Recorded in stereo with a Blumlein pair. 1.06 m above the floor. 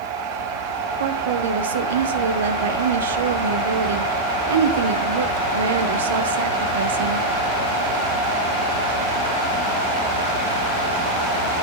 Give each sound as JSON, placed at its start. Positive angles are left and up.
{"t": 1.0, "sound": "a woman speaking", "azimuth_deg": -65, "distance_m": 0.7}